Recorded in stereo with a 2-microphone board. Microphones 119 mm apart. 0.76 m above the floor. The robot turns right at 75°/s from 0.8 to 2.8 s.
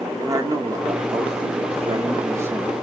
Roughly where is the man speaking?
Behind right.